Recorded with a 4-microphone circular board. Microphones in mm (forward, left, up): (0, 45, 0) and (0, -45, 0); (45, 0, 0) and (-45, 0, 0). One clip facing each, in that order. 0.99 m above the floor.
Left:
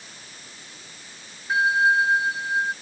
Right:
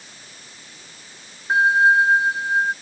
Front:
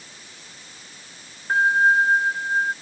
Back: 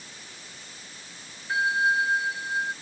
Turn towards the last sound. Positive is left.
turn(degrees=-40)